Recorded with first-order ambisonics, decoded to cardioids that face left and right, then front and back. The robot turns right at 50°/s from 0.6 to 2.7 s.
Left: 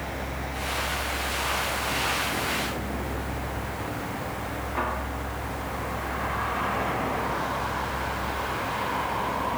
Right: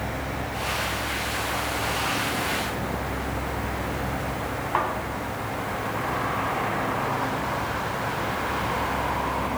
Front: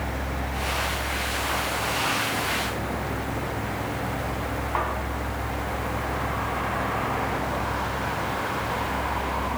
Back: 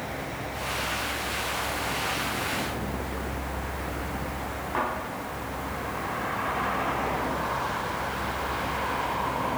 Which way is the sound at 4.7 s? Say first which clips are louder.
Right 5 dB, front 1 dB; 85° right.